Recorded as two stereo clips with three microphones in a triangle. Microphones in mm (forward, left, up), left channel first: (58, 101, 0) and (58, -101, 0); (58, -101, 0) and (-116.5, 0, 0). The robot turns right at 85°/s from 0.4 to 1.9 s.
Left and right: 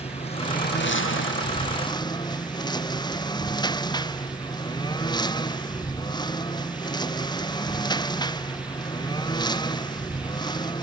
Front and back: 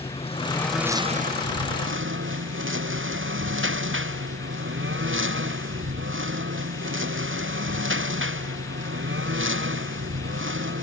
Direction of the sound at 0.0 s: 30° left.